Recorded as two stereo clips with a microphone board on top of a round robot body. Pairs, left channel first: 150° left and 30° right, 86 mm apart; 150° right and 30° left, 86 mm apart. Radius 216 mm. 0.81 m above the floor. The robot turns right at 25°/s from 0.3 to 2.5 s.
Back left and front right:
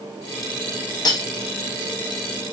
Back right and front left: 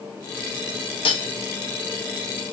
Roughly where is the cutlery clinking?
Behind.